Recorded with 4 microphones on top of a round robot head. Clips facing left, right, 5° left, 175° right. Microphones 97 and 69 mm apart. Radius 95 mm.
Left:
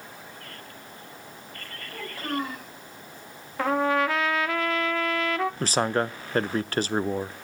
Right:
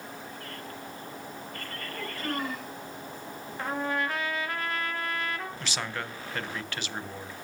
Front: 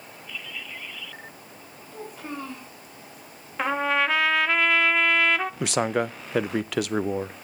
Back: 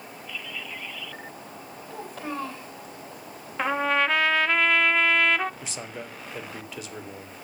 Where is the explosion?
No explosion in this recording.